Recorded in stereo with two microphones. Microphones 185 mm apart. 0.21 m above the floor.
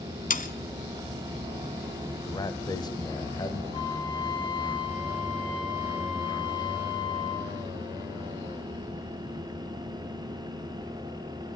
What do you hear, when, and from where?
0.3 s sawing: 45° left (ahead or behind), 0.8 m
2.3 s a man speaking: 20° left (ahead or behind), 1.1 m
3.7 s a flute: 25° left (ahead or behind), 2.5 m